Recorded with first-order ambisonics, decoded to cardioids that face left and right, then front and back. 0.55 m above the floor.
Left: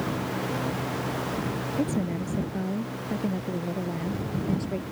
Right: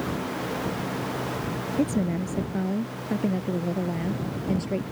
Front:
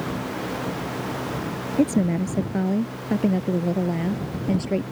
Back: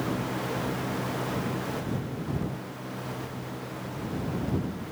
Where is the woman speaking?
10° right; by 4.8 s 15° right.